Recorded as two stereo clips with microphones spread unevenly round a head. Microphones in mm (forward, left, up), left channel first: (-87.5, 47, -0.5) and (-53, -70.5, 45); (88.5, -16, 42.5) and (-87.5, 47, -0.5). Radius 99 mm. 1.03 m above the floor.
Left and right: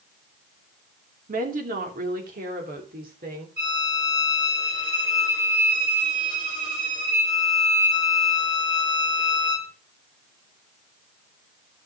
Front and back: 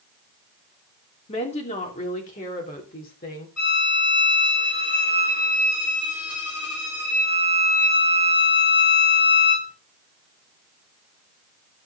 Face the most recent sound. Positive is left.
turn(degrees=-30)